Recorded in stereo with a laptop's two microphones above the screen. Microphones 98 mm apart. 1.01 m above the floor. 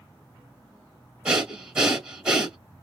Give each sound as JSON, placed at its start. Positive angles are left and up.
{"t": 1.2, "sound": "breathing", "side_deg": -10, "distance_m": 1.2}